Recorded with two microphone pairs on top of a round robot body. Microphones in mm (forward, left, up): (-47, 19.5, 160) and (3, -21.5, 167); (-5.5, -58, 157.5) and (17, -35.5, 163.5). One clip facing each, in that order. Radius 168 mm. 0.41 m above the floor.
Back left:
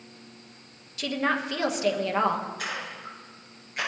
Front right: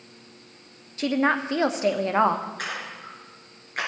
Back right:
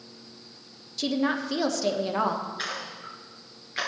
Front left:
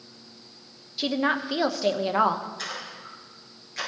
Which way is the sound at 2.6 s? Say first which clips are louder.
Front right 1 dB, back right 2 dB; 80° right.